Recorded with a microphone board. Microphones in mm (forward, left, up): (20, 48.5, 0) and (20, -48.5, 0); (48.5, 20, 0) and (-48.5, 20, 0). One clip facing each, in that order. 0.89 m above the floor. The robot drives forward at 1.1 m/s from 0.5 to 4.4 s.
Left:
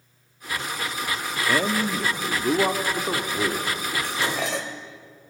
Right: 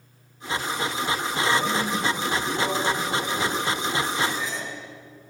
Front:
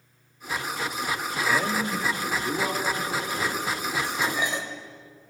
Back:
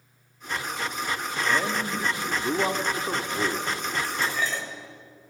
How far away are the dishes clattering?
About 3 m.